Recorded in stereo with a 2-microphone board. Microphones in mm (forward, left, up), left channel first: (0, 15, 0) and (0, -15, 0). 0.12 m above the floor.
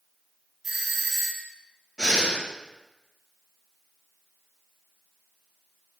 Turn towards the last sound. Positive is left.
turn(degrees=20)  # may be behind; listen again after turning